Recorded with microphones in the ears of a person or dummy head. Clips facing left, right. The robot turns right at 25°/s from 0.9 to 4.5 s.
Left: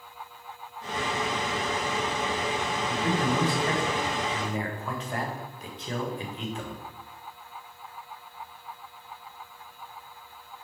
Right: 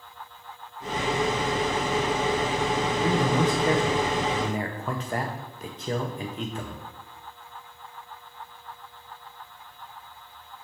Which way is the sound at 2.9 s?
Centre (ahead or behind).